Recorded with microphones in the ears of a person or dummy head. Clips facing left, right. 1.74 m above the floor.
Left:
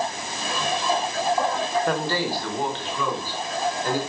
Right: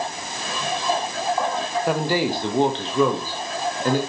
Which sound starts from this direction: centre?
A man speaking, at 1.9 s.